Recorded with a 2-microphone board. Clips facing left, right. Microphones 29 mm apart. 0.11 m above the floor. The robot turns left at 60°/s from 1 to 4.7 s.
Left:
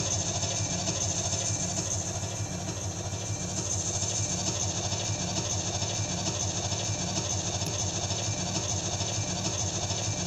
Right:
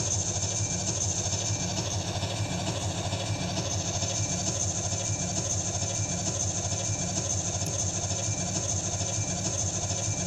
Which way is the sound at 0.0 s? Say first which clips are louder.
Even; 20° left.